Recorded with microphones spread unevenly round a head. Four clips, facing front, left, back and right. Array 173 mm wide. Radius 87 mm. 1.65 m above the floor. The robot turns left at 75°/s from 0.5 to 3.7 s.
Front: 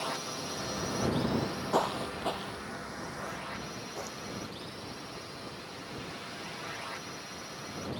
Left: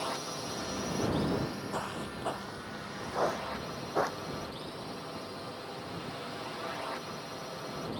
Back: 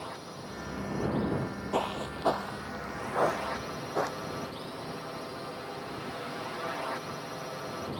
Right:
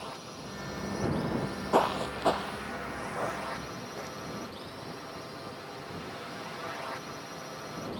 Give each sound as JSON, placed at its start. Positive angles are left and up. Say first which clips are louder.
{"t": 0.0, "sound": "a drone", "louder": "left 5 dB, front 4 dB", "azimuth_deg": 60}
{"t": 1.3, "sound": "footsteps", "louder": "right 7 dB, front 1 dB", "azimuth_deg": -60}